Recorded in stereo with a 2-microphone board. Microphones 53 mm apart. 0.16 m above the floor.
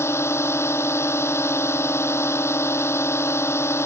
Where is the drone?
55° left (ahead or behind).